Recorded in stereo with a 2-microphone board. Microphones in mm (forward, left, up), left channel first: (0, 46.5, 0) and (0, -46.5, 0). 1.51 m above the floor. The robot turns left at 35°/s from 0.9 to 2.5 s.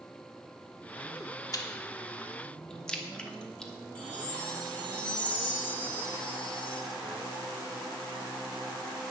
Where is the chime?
15° left (ahead or behind), 3 m.